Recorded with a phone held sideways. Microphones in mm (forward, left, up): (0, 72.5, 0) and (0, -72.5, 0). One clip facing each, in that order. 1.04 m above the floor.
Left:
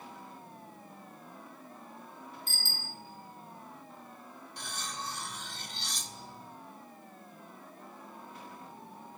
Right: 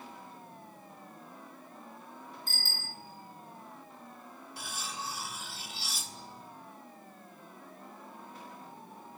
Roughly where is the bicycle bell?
Right.